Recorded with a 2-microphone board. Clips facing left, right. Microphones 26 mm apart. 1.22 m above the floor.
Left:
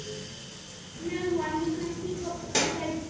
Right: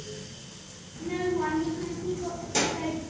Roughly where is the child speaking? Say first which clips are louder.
Right 1 dB; left.